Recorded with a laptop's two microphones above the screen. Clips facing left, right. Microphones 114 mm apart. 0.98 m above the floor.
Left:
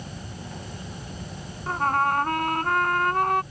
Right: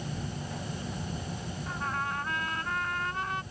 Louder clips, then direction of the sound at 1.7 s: Left 12 dB; 65° left (ahead or behind).